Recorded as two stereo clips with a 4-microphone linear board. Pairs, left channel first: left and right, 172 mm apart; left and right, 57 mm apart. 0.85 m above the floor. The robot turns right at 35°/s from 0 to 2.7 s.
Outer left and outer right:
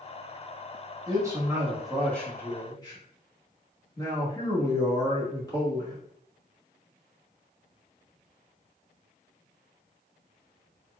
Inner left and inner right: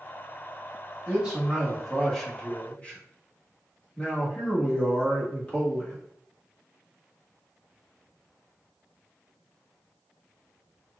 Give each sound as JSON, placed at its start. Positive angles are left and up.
{"t": 1.1, "sound": "a man speaking", "azimuth_deg": -30, "distance_m": 1.5}